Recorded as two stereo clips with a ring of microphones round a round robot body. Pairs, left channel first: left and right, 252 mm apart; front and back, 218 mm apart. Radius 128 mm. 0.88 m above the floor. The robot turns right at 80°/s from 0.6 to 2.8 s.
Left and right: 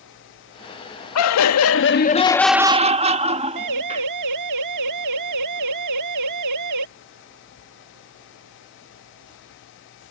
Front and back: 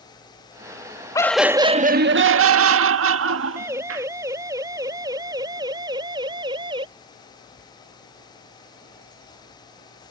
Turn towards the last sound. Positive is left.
turn(degrees=-105)